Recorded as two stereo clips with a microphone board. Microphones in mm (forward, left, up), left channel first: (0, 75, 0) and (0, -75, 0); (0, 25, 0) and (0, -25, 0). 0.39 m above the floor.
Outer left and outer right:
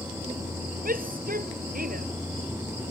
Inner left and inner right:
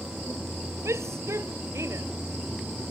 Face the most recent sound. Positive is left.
turn(degrees=-75)  # may be behind; listen again after turning